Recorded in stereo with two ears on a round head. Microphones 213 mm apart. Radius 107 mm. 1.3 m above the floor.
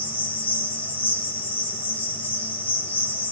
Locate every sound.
0.0 s an insect: 10° left (ahead or behind), 8 m